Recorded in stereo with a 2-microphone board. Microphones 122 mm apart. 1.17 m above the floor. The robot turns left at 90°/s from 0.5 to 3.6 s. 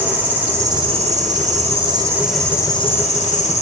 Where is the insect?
15° right, 6 m; by 3.6 s 70° left, 6 m.